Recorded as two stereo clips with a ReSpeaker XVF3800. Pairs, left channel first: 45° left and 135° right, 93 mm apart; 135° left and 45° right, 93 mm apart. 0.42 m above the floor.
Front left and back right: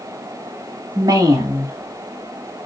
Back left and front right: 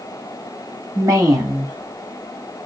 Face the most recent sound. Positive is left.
turn(degrees=-90)